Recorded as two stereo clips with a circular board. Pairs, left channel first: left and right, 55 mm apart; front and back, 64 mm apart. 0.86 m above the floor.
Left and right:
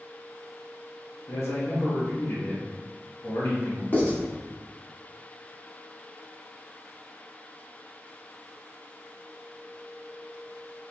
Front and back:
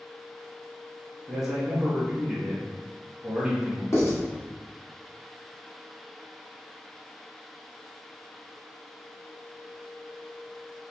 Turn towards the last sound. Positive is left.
turn(degrees=40)